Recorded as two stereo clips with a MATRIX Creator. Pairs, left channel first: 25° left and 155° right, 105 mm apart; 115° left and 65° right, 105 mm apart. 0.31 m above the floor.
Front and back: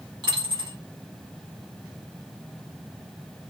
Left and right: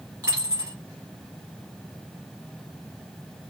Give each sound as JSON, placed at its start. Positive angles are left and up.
{"t": 0.2, "sound": "a dropped coin", "azimuth_deg": -115, "distance_m": 2.0}